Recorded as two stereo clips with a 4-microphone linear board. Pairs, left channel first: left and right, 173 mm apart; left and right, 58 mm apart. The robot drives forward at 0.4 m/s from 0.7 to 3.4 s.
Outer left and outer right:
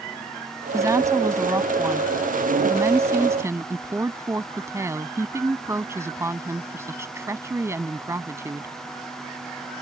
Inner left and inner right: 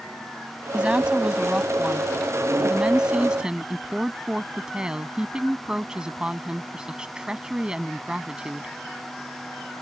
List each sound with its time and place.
0.7 s a woman speaking: 20° right (ahead or behind); by 8.7 s 15° right (ahead or behind)